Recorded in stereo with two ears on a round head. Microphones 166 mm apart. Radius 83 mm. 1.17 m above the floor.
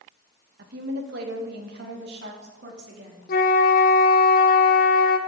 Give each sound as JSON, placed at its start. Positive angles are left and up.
{"t": 0.6, "sound": "a woman speaking", "side_deg": -60, "distance_m": 1.3}
{"t": 3.3, "sound": "a flute", "side_deg": 50, "distance_m": 0.8}